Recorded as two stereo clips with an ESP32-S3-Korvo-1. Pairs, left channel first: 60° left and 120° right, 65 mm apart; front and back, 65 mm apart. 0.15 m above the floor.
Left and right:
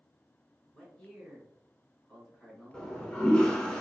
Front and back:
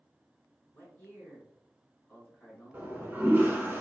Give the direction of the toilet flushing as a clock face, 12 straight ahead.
8 o'clock.